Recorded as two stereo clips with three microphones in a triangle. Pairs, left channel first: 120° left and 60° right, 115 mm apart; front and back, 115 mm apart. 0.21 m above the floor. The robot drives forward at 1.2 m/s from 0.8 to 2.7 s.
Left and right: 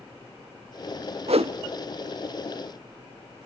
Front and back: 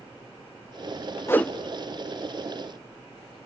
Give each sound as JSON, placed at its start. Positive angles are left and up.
{"t": 1.3, "sound": "a whoosh", "azimuth_deg": -65, "distance_m": 0.7}